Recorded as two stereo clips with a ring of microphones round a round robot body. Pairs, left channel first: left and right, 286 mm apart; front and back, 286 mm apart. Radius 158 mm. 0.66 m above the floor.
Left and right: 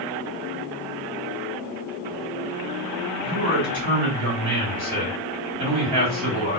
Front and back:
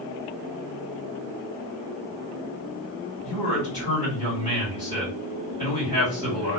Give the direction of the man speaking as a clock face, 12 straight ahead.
4 o'clock.